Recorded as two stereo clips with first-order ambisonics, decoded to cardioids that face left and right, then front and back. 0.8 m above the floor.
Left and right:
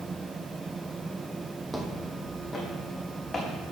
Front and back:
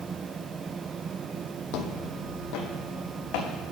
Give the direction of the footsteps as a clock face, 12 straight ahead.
12 o'clock.